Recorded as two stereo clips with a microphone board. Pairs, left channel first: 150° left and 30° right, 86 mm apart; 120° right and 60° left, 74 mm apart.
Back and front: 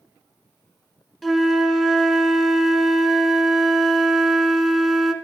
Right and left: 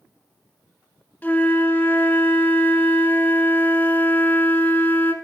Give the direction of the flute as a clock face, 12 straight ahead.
4 o'clock.